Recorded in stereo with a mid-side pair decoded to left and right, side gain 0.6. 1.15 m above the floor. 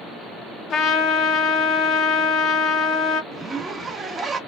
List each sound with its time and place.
0.7 s a trumpet: 50° left, 0.7 m
3.3 s a zipper: 25° right, 0.9 m